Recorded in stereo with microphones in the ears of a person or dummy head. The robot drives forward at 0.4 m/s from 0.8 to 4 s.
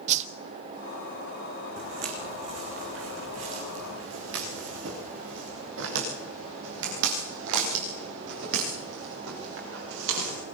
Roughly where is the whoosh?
Right.